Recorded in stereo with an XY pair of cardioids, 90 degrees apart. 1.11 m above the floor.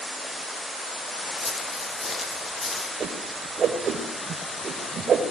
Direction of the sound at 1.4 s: 25° left.